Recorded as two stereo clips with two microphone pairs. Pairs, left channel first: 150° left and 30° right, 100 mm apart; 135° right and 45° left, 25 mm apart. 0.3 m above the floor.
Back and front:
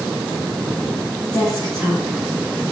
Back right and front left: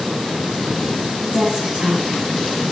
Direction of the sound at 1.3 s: 65° left.